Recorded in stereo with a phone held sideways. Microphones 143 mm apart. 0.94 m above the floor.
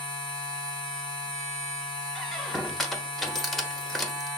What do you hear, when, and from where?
0.0 s a machine running: 35° left (ahead or behind), 1.7 m
2.1 s a squeak: centre (ahead or behind), 0.6 m